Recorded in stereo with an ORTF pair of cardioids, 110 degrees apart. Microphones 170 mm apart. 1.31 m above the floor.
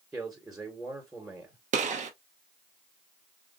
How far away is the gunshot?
About 0.8 m.